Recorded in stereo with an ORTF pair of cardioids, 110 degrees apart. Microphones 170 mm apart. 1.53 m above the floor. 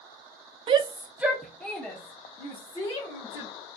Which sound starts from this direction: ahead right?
A shout, at 0.7 s.